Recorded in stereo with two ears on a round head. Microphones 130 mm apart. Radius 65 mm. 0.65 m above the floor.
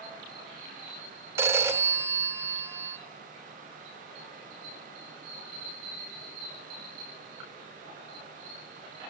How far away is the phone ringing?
About 1.0 m.